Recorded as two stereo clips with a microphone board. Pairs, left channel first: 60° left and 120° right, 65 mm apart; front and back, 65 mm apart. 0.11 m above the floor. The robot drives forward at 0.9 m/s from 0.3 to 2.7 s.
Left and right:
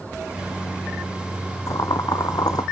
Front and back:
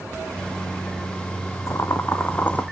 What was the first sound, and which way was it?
Boiling, 40° left.